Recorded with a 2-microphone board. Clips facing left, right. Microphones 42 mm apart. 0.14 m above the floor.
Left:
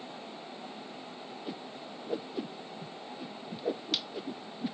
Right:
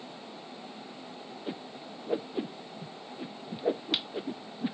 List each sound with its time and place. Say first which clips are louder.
1.5 s a whoosh: right 3 dB; 25° right (ahead or behind)